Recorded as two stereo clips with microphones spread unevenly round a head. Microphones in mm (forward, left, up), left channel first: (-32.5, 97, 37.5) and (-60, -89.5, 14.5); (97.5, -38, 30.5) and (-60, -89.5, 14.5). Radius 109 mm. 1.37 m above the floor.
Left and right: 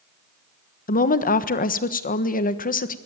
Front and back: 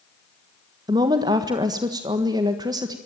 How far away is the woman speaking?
About 1.4 m.